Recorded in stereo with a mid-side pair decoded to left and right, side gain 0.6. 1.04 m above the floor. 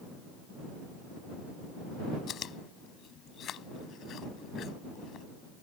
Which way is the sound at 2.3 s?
50° left.